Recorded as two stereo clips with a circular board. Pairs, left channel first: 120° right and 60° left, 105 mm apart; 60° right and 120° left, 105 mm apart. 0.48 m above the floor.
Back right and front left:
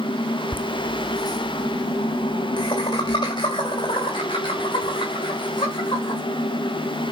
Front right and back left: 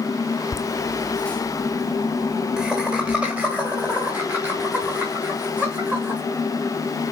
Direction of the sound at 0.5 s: 65° right.